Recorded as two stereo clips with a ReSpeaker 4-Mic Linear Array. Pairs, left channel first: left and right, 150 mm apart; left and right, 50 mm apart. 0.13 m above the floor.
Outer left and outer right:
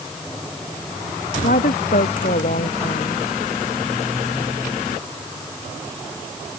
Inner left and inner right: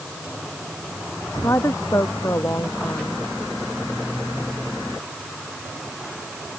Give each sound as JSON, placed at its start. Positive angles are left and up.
{"t": 1.4, "sound": "a woman speaking", "side_deg": 75}